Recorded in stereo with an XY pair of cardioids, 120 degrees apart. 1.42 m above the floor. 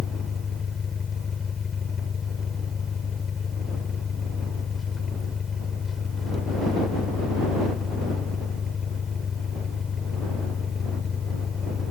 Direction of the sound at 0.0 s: 35° left.